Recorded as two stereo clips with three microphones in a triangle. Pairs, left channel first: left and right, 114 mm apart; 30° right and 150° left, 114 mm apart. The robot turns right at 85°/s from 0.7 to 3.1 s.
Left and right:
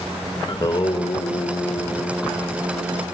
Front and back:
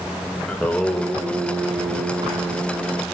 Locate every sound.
0.5 s singing: 45° left, 0.5 m; by 3.0 s 115° right, 0.5 m